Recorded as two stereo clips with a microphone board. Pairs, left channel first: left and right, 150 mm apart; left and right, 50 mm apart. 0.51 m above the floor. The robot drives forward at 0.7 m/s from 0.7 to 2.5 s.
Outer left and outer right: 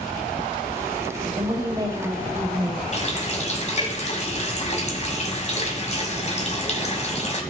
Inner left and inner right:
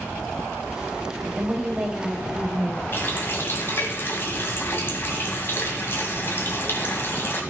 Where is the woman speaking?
25° right (ahead or behind), 2 m; by 2.8 s 20° right (ahead or behind), 3 m.